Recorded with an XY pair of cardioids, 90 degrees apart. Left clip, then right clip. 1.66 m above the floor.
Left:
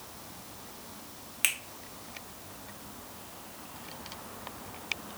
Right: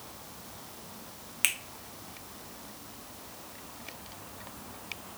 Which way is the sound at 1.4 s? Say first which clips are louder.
Even; 10° right.